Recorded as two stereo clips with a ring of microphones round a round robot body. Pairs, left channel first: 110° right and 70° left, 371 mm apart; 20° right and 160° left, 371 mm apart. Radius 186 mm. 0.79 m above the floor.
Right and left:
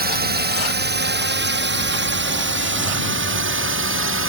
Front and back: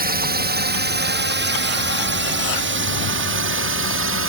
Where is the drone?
110° left; by 4.3 s 115° left.